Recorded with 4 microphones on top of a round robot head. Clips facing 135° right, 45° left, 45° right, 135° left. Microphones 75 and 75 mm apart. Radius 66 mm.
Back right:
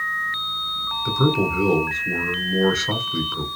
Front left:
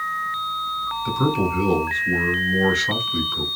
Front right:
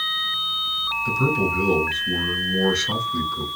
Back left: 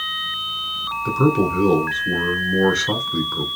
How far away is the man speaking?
About 1.5 m.